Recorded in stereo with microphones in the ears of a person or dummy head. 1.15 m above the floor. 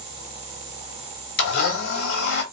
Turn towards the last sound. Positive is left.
turn(degrees=60)  # may be behind; listen again after turning